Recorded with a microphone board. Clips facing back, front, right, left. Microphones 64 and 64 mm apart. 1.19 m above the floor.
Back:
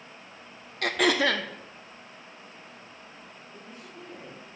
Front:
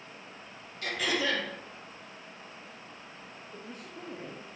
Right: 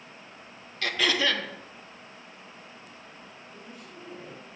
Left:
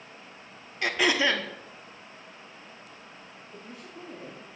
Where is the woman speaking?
35° left, 2 m.